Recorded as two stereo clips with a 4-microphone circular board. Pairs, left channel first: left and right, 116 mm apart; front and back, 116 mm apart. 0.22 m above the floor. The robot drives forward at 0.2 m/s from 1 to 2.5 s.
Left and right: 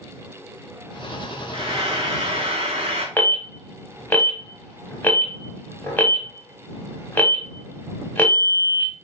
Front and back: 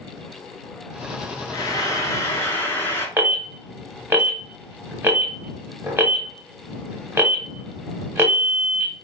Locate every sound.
1.5 s frying: 55° right, 0.8 m; by 3.1 s 65° right, 0.7 m
3.2 s an alarm: 135° left, 0.7 m